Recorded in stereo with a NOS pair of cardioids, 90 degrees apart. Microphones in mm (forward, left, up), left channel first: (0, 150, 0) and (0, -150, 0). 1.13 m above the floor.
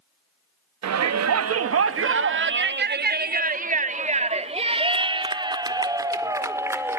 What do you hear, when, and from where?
0.8 s a shout: 65° right, 2.5 m; by 7.0 s 5° right, 5 m